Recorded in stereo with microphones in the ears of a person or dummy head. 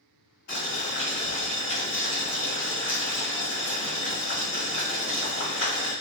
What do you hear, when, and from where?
0.5 s boiling: 50° left (ahead or behind), 1.6 m